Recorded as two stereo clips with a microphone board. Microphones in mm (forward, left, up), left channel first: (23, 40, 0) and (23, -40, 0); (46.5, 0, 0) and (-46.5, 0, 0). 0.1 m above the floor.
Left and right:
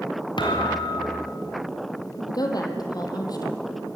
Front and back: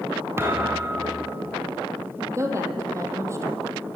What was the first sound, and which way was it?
A thud, 115° left.